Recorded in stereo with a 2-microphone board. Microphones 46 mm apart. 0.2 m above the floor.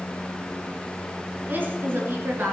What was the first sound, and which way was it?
A woman speaking, 45° right (ahead or behind).